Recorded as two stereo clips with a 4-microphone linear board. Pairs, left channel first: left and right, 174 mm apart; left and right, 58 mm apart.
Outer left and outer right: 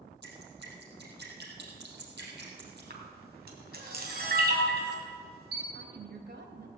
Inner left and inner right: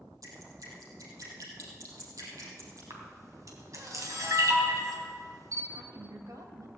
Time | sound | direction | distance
0.2 | dripping | 80° right | 4.5 m
2.9 | a camera shutter | 70° right (ahead or behind) | 3 m
5.7 | a woman speaking | 75° right (ahead or behind) | 2.5 m